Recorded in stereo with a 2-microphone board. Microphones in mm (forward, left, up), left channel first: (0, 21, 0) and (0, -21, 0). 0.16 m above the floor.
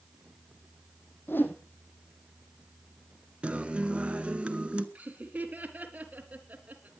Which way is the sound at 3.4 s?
25° right (ahead or behind).